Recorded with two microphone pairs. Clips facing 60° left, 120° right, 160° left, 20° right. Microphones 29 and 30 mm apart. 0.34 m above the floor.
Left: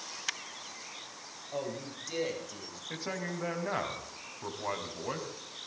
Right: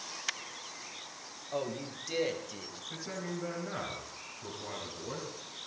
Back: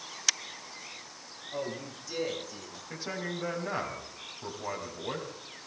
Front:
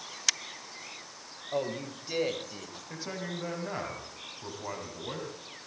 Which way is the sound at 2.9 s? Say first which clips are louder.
Left 3 dB, back 2 dB; 85° left.